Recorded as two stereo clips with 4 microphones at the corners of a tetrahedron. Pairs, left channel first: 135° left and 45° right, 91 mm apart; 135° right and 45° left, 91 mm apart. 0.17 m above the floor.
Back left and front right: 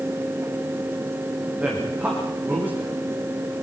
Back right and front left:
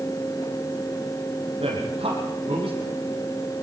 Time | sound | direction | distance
1.6 | a man speaking | 30° left | 8.5 m